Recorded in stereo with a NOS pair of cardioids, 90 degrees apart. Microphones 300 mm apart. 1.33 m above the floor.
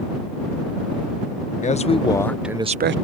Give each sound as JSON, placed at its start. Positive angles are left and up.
{"t": 1.6, "sound": "a man speaking", "azimuth_deg": 25}